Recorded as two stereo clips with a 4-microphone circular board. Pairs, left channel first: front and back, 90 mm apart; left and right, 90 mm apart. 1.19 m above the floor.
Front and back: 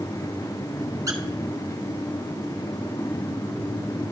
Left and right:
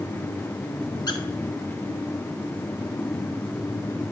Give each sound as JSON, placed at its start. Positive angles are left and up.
{"t": 1.1, "sound": "a squeak", "azimuth_deg": 130, "distance_m": 0.9}